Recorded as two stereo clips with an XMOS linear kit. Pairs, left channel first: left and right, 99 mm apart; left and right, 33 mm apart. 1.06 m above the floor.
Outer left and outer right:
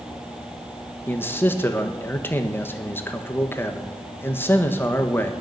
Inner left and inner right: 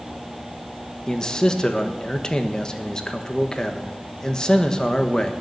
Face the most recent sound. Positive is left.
turn(degrees=20)  # may be behind; listen again after turning